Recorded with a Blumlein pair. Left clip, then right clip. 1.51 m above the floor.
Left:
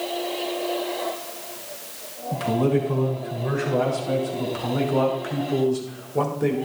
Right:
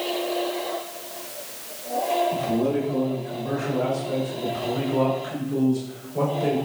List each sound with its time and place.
2.3 s a man speaking: 65° left, 6 m; by 6.6 s 75° left, 3.5 m